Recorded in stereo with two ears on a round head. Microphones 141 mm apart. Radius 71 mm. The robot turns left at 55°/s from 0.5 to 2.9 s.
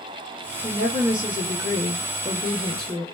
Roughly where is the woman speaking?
Ahead right.